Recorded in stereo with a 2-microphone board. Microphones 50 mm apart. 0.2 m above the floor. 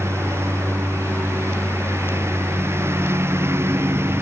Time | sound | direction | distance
0.0 | a lawn mower | 65° right (ahead or behind) | ?